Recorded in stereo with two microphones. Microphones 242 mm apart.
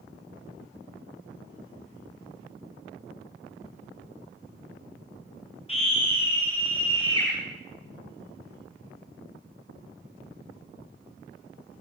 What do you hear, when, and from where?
5.7 s a scream: 25° left (ahead or behind), 6.5 m; by 7.3 s 20° left (ahead or behind), 7.5 m